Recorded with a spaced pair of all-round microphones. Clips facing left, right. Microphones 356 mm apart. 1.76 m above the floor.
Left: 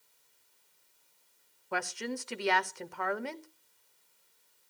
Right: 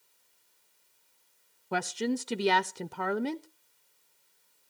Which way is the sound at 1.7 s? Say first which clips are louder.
Right 7 dB; 50° right (ahead or behind).